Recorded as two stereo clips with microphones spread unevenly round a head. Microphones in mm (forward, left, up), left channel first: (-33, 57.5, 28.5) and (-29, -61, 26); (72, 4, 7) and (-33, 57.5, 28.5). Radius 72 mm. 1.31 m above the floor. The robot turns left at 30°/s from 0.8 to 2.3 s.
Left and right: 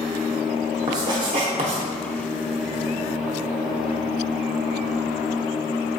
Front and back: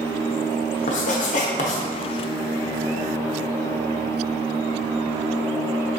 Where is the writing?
25° right, 0.6 m; by 1.8 s 55° right, 0.6 m.